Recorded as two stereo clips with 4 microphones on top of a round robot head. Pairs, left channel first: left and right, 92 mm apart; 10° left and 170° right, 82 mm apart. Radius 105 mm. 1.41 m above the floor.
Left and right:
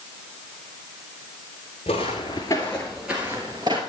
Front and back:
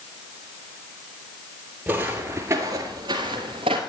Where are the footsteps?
125° left, 1.7 m; by 3.8 s 140° right, 1.8 m.